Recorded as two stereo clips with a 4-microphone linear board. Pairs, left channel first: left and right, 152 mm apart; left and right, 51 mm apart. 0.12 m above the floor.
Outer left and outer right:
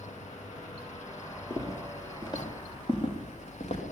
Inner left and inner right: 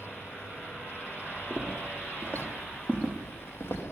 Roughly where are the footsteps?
Left.